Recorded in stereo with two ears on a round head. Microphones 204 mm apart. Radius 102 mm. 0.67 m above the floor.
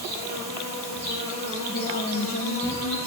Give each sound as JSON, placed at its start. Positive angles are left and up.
{"t": 0.0, "sound": "an insect", "side_deg": -45, "distance_m": 4.5}
{"t": 1.7, "sound": "a woman speaking", "side_deg": 40, "distance_m": 1.4}